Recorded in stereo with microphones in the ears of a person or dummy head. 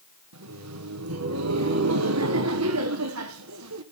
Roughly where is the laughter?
Right.